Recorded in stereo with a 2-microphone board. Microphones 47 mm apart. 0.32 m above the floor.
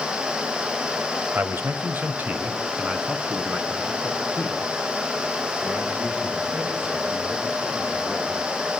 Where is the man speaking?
45° right (ahead or behind), 1.3 m; by 8.4 s 20° right (ahead or behind), 10.5 m.